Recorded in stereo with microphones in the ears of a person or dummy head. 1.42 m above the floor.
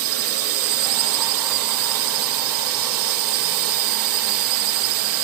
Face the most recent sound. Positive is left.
turn(degrees=-70)  # may be behind; listen again after turning